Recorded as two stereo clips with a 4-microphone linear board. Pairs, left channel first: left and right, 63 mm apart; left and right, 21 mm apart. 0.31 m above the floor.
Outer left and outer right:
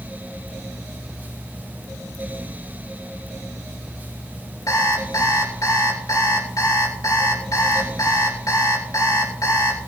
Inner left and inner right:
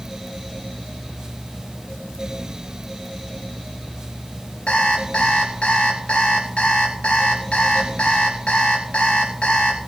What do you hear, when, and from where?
4.7 s an alarm clock: 70° left (ahead or behind), 3.5 m